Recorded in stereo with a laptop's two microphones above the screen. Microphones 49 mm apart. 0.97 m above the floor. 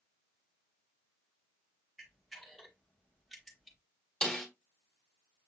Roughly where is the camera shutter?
Centre.